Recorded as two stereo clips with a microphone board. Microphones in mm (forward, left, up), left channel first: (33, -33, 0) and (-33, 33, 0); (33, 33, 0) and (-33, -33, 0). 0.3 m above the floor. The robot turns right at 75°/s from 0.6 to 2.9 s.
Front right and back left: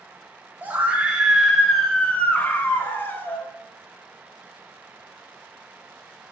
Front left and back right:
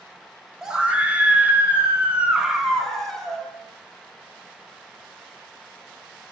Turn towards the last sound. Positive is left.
turn(degrees=-35)